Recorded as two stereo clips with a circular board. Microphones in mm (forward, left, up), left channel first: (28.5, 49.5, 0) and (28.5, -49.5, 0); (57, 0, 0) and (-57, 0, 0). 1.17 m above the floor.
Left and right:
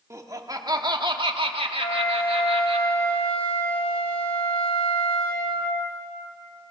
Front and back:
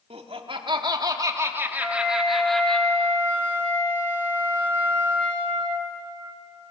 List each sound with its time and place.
0.1 s laughter: 150° right, 2 m; by 2.8 s 80° right, 2.5 m
1.8 s a flute: 75° left, 3.5 m